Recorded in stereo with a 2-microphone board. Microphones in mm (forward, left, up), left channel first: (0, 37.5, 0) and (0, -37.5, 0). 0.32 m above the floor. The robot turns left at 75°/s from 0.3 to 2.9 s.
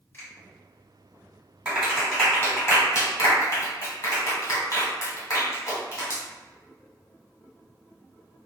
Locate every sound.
0.1 s a finger snap: 25° left (ahead or behind), 1.3 m
1.6 s a clap: 20° right (ahead or behind), 1.4 m; by 6.2 s 45° left (ahead or behind), 1.4 m